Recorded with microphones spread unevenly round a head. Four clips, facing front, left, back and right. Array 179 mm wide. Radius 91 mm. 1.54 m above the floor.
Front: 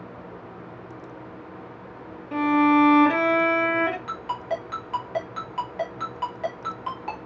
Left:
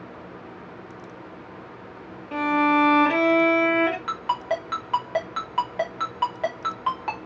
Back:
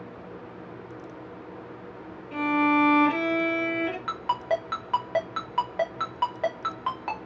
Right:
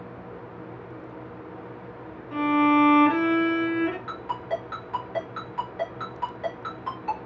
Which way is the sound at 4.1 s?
155° left.